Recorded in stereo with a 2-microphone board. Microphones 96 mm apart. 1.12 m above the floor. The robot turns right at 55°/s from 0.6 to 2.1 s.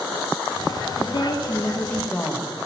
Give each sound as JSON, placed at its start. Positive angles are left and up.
{"t": 1.0, "sound": "a woman speaking", "azimuth_deg": 110, "distance_m": 1.6}